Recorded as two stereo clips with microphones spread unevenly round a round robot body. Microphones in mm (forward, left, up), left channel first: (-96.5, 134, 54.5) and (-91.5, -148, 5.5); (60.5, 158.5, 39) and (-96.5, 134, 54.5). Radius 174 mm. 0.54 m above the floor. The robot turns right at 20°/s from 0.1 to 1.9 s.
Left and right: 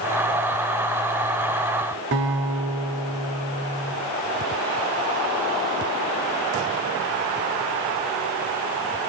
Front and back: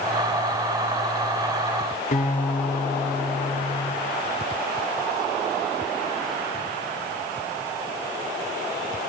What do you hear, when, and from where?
2.1 s a guitar: 40° right, 1.4 m